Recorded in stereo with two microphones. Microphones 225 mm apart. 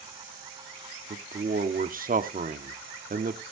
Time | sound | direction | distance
1.1 | a man speaking | 40° right (ahead or behind) | 0.9 m